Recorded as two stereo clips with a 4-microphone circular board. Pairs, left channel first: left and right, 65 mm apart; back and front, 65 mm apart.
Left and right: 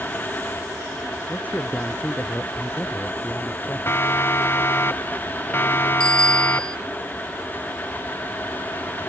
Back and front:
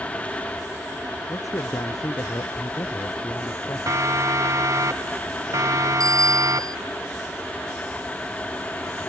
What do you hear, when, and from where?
1.3 s a man speaking: 155° left
3.9 s a siren: 40° left; by 6.9 s 35° left
6.0 s a bicycle bell: 15° left